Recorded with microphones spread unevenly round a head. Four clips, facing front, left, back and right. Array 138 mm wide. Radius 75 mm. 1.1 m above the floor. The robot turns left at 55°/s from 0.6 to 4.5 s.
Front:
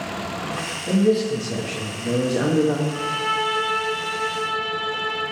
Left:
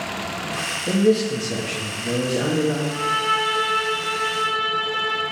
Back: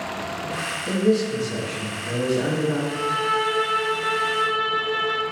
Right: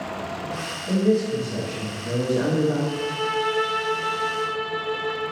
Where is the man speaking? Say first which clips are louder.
Left 2 dB, front 2 dB; 100° left, 1.3 m; by 2.8 s 5° right, 1.3 m.